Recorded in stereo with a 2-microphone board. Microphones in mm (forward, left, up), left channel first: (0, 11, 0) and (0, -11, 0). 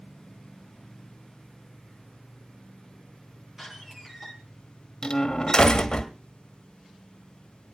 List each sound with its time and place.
3.6 s a door slam: 15° right (ahead or behind), 8 m
5.0 s a door slam: 35° left (ahead or behind), 1.7 m